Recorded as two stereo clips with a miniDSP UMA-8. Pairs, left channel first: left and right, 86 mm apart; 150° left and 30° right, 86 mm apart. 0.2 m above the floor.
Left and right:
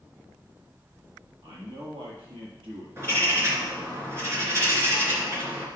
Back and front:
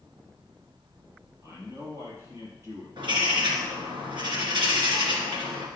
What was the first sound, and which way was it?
A man speaking, 85° right.